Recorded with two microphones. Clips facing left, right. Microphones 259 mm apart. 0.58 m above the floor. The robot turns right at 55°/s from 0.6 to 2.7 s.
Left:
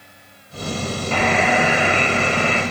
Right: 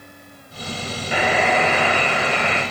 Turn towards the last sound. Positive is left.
turn(degrees=70)